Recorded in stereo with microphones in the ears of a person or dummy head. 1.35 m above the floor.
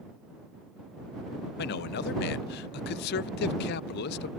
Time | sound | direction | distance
1.6 | a man speaking | 55° left (ahead or behind) | ?